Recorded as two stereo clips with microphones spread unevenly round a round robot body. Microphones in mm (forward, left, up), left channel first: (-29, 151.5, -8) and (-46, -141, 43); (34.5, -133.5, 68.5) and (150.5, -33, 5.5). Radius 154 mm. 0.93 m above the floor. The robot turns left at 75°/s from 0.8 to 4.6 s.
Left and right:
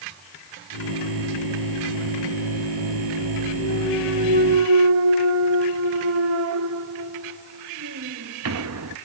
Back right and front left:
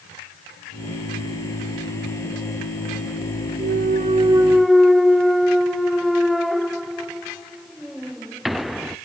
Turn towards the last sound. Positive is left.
turn(degrees=-45)